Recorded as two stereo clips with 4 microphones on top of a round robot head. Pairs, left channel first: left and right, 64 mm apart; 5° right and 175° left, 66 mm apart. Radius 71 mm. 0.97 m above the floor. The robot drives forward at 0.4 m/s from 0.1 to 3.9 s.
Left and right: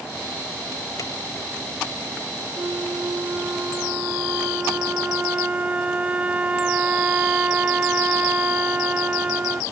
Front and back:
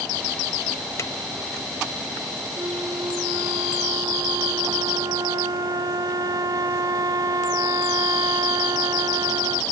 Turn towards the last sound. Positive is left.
turn(degrees=-160)